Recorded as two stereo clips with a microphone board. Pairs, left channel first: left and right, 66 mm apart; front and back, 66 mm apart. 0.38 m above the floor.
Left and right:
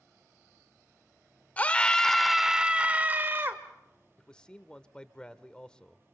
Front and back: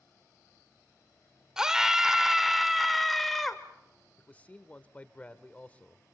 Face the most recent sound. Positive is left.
turn(degrees=30)